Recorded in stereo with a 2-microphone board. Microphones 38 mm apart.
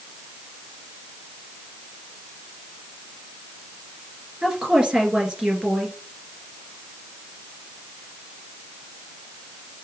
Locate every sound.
4.4 s a woman speaking: 25° right (ahead or behind), 2.0 m